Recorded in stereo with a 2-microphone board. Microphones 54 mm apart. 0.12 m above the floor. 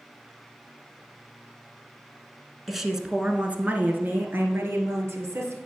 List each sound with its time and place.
2.7 s a woman speaking: centre (ahead or behind), 1.1 m; by 5.5 s 60° right (ahead or behind), 2 m